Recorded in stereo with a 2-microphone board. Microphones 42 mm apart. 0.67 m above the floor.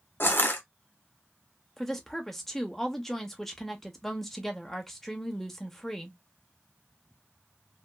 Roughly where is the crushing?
Left.